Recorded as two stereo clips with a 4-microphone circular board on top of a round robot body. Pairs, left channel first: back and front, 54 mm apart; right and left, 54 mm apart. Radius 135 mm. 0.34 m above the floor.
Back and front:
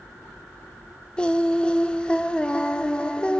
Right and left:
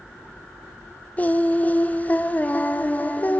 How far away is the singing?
About 1.3 m.